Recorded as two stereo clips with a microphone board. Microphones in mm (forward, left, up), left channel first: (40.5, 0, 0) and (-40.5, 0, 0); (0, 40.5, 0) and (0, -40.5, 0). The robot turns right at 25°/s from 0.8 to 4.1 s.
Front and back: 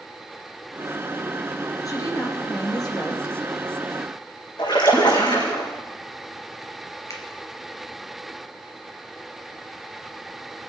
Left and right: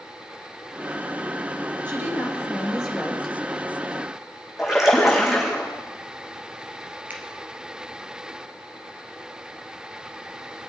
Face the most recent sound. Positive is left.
turn(degrees=-25)